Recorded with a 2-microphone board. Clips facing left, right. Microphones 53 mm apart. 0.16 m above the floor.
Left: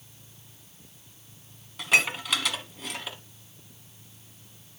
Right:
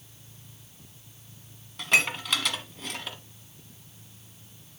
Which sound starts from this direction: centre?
Dishes clattering, at 1.8 s.